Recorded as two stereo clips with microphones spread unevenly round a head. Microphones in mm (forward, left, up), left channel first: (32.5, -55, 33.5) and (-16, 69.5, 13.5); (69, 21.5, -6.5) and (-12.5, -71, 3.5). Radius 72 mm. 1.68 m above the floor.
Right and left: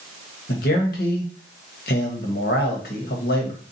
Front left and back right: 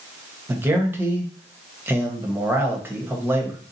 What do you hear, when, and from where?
0.5 s a man speaking: 60° right, 1.2 m